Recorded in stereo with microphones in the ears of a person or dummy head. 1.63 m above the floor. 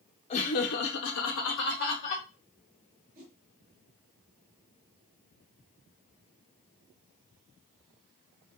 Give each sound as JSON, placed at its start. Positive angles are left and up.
{"t": 0.3, "sound": "laughter", "side_deg": 35, "distance_m": 1.0}
{"t": 3.1, "sound": "a whoosh", "side_deg": -40, "distance_m": 1.8}